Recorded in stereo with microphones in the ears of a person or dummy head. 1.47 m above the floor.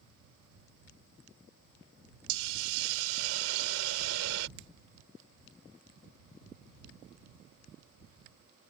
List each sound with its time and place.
2.3 s a hiss: 85° right
4.6 s a finger snap: 75° right (ahead or behind)